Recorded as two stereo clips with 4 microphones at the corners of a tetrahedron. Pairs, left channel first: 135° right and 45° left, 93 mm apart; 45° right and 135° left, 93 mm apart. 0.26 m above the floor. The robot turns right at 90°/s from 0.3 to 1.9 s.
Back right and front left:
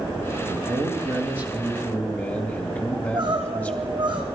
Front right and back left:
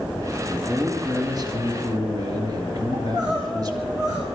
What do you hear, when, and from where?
0.5 s a man speaking: 30° left, 2 m; by 3.9 s 160° left, 2 m
2.9 s crying: 85° left, 4.5 m